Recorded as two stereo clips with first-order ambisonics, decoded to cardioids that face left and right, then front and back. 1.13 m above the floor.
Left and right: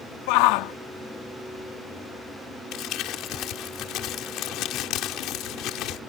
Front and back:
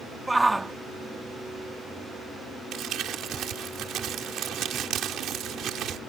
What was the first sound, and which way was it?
A shout, 95° left.